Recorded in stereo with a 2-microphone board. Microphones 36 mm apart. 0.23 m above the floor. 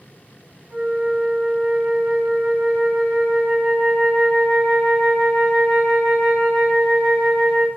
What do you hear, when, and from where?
0.7 s a flute: 15° left (ahead or behind), 1.8 m